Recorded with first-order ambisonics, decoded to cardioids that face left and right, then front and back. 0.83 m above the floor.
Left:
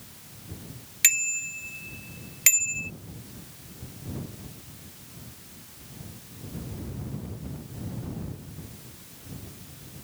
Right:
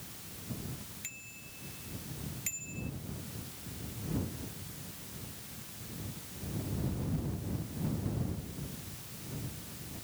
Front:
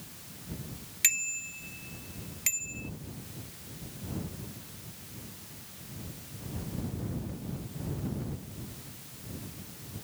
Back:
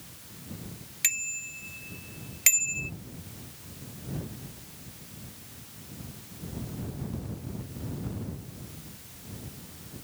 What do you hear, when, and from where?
1.0 s a bicycle bell: 85° left; by 2.9 s 130° left